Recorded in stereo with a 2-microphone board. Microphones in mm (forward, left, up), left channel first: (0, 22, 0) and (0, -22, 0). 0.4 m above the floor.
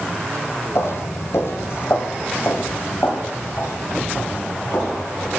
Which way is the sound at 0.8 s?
70° left (ahead or behind).